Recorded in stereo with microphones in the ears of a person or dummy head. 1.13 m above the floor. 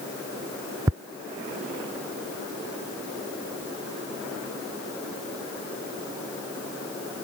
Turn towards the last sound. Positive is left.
turn(degrees=-15)  # may be behind; listen again after turning